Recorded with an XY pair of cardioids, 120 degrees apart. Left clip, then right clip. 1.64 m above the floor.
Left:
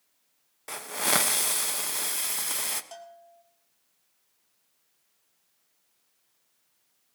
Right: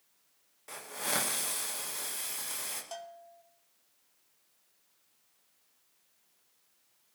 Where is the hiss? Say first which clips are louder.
Left 8 dB; 55° left, 1.2 m.